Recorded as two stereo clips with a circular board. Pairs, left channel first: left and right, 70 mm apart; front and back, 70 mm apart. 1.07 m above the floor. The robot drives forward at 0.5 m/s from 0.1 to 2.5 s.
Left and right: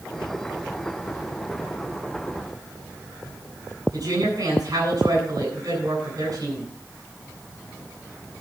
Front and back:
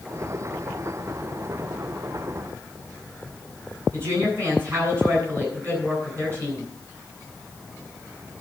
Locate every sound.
3.9 s a woman speaking: 130° right, 8.5 m